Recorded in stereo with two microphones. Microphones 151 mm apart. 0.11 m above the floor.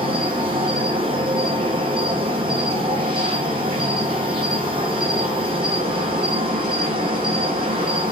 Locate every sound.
0.0 s an insect: 35° right (ahead or behind), 1.1 m